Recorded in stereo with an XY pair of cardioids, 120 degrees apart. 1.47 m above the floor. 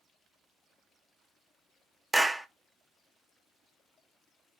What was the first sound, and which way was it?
A clap, 10° right.